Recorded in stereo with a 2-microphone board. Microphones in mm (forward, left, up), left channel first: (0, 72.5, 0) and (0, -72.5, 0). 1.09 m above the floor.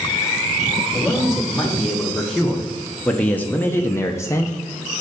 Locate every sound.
0.9 s a man speaking: centre (ahead or behind), 1.7 m; by 5.0 s 20° left (ahead or behind), 0.8 m